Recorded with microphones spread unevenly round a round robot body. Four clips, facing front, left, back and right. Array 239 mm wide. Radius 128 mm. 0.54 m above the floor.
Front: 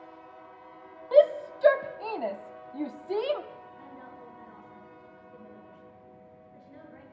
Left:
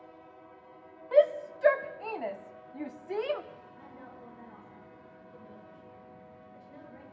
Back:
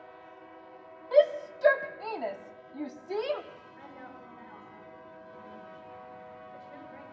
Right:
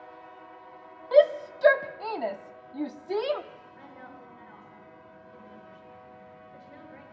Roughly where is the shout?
Ahead right.